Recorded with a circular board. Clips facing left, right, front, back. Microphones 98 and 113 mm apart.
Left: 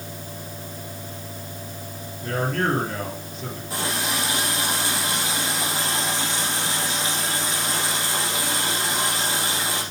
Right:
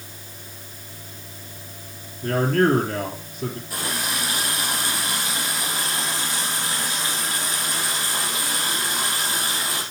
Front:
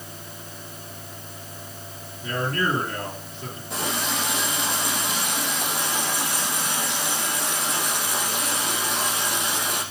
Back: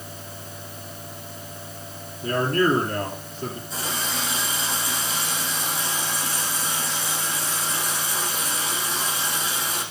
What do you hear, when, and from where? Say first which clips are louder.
2.2 s a man speaking: right 5 dB, back 5 dB; 125° right, 3 m
3.7 s a running tap: left 2 dB, front 2 dB; 25° left, 4.5 m